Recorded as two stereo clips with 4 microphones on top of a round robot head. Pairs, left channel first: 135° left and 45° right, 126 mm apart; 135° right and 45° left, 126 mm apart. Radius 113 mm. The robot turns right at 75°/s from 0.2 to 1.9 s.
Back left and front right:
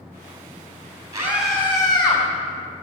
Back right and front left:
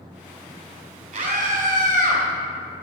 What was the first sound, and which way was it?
A scream, 20° left.